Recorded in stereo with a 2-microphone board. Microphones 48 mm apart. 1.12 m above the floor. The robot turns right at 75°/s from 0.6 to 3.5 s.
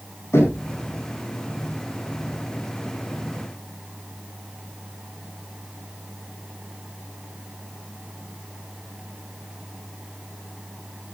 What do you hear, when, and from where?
0.3 s knocking: 80° left, 7 m; by 0.7 s 75° left (ahead or behind), 7 m